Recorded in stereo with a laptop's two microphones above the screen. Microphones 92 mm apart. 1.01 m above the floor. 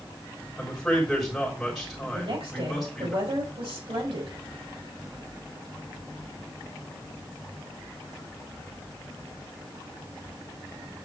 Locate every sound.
0.6 s a man speaking: centre (ahead or behind), 3.5 m
2.1 s a woman speaking: 85° right, 5 m